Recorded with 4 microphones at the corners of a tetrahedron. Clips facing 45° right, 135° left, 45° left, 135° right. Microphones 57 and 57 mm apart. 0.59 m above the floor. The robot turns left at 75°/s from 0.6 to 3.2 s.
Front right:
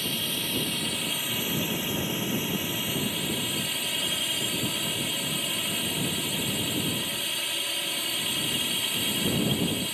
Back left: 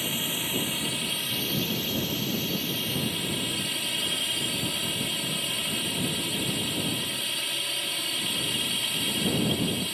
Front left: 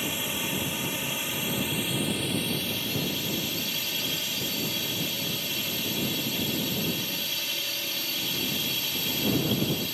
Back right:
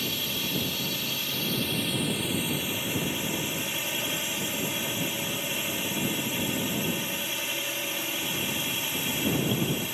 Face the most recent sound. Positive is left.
turn(degrees=-125)